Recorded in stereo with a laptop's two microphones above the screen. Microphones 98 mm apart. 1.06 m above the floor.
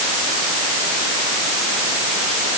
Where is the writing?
I don't hear writing.